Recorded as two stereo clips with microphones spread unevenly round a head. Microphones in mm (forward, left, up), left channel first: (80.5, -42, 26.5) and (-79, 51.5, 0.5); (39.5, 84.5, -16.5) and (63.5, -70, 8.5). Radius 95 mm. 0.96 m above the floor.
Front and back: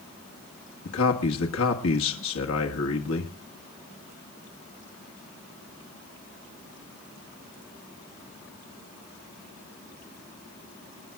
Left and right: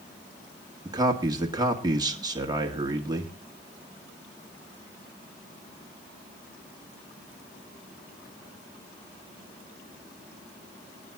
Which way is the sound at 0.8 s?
15° right.